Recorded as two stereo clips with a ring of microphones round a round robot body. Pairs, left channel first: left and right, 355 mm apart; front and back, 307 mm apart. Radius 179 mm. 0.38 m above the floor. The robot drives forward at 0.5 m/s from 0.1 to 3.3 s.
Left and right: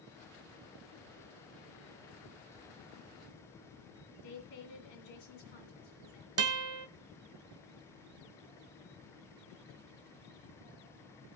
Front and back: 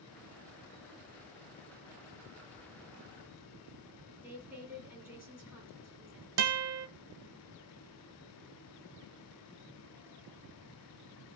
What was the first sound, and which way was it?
A woman speaking, 95° left.